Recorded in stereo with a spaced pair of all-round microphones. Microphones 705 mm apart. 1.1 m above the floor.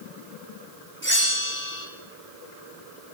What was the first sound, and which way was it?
A bell, 15° left (ahead or behind).